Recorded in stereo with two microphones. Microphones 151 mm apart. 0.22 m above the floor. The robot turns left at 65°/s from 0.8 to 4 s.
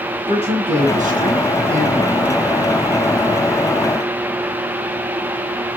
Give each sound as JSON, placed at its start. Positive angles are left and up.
{"t": 0.3, "sound": "a man speaking", "azimuth_deg": -55, "distance_m": 2.5}